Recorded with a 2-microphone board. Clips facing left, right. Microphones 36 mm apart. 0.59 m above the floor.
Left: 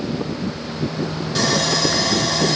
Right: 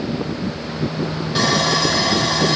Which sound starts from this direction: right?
Sawing, at 1.4 s.